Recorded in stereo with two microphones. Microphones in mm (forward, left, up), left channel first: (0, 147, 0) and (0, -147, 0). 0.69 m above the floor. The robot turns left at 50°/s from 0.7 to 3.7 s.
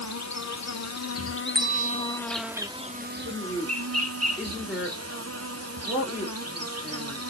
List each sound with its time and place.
0.0 s an insect: 85° left, 0.7 m; by 7.3 s 65° right, 0.7 m
1.6 s a bell: 30° right, 0.7 m; by 2.2 s 65° right, 0.7 m
3.2 s a woman speaking: 25° right (ahead or behind), 2.5 m; by 7.2 s centre (ahead or behind), 2.5 m